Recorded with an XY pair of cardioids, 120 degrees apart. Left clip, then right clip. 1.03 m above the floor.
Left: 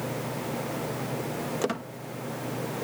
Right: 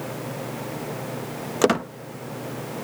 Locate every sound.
1.6 s a squeak: 55° right